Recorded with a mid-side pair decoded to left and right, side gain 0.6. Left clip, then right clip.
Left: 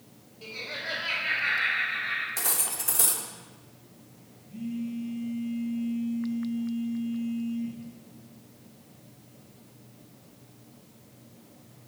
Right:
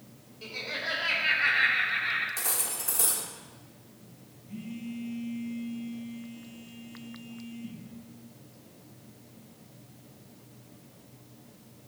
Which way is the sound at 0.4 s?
10° right.